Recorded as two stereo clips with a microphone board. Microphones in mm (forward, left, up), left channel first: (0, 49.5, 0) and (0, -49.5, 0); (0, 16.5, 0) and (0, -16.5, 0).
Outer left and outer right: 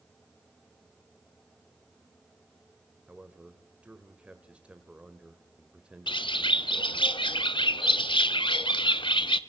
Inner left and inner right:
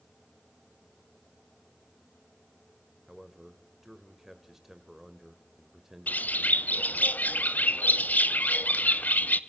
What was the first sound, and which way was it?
A man speaking, 10° right (ahead or behind).